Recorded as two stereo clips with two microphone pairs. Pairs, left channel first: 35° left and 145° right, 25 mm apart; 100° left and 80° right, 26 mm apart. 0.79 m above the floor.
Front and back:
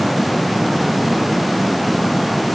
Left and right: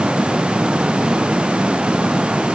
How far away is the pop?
No pop in this recording.